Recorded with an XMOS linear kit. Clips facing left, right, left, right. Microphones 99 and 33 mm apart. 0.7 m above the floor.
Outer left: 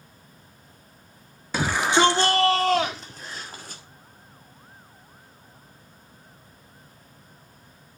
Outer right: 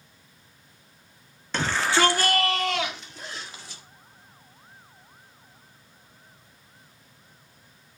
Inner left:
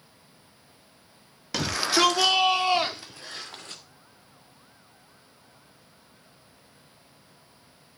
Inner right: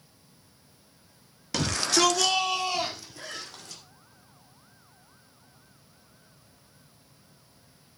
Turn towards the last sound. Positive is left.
turn(degrees=-65)  # may be behind; listen again after turning